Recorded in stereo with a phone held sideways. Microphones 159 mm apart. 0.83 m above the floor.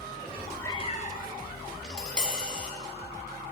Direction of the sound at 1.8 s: 5° left (ahead or behind).